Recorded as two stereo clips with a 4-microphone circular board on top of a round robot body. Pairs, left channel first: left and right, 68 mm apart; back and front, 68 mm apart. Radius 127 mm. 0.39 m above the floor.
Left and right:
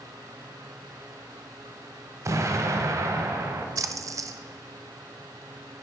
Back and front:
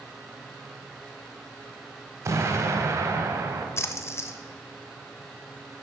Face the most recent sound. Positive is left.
turn(degrees=-130)